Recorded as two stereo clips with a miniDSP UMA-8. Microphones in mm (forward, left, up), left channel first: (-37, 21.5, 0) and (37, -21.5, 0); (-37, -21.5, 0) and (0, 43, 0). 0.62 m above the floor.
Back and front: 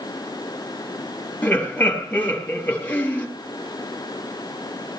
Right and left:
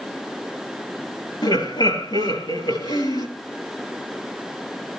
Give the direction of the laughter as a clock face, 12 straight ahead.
5 o'clock.